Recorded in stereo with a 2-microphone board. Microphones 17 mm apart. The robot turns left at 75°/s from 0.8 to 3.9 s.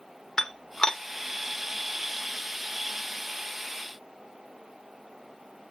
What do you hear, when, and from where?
0.4 s dishes clattering: 45° left (ahead or behind), 0.7 m; by 1.0 s 55° left (ahead or behind), 0.7 m